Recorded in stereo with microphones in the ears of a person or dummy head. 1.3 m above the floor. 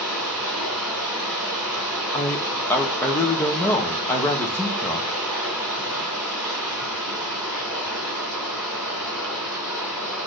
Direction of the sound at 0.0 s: Centre (ahead or behind).